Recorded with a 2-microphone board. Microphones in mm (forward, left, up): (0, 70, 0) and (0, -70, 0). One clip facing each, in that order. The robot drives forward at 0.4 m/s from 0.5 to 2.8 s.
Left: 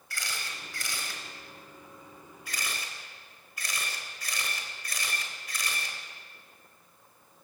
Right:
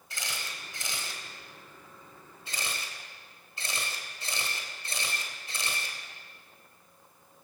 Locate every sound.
0.1 s a camera shutter: 20° right (ahead or behind), 4.5 m; by 6.0 s 25° right (ahead or behind), 4 m